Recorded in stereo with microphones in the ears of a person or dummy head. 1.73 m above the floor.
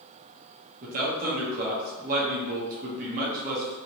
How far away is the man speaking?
About 0.8 m.